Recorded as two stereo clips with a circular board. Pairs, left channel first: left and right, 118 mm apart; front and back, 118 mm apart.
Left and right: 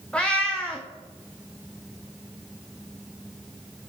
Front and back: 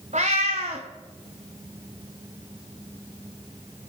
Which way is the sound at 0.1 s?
170° left.